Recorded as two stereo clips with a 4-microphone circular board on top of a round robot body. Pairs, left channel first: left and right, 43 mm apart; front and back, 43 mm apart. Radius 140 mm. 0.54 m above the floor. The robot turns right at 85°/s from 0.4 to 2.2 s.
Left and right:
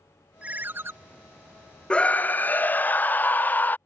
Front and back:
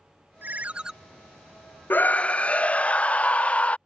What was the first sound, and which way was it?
A ringtone, 145° right.